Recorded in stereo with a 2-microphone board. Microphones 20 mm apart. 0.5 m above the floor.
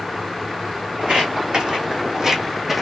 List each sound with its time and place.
1.0 s footsteps: 65° right (ahead or behind), 1.2 m; by 2.8 s 15° right (ahead or behind), 0.9 m